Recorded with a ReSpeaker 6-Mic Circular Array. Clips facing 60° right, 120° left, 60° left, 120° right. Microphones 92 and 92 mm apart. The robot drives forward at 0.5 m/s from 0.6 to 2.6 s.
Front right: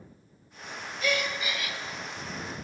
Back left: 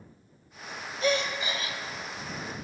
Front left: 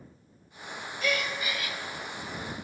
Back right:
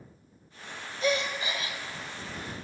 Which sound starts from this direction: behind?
A gasp, at 1.0 s.